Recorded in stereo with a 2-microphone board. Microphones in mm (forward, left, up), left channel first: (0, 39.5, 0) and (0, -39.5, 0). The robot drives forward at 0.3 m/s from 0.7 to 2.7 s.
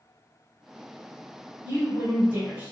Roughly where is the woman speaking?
Right.